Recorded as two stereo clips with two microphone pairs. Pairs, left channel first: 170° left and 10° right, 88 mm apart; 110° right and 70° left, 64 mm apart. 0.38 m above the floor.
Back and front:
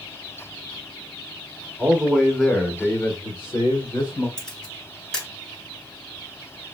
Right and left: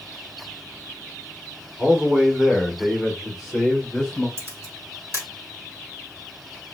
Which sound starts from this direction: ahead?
A man speaking, at 1.8 s.